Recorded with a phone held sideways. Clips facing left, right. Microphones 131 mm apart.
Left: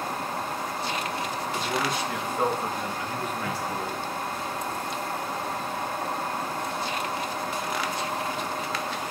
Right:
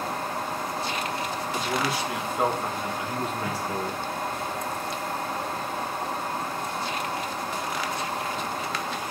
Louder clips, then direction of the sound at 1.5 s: Right 1 dB; centre (ahead or behind).